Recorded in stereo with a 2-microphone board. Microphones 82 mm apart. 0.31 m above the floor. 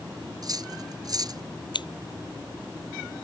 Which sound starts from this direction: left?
Scissors, at 1.7 s.